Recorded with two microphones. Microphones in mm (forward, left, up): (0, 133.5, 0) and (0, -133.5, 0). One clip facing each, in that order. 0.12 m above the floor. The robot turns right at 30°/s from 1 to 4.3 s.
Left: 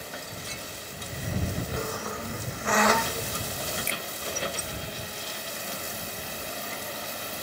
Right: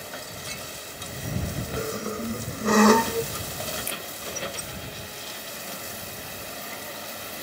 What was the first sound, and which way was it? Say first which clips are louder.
A squeak: right 4 dB; 20° right (ahead or behind).